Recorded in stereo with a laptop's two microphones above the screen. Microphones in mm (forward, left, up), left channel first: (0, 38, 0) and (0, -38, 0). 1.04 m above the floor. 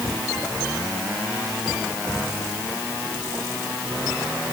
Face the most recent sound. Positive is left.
No sound to turn to.